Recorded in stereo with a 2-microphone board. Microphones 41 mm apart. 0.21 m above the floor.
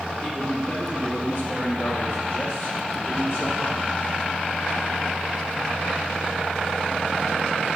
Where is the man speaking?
55° left (ahead or behind), 4 m; by 3.8 s 75° left (ahead or behind), 6 m.